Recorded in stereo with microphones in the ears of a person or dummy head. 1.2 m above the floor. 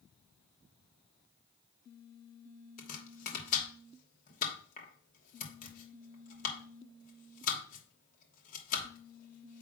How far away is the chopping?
About 2.5 m.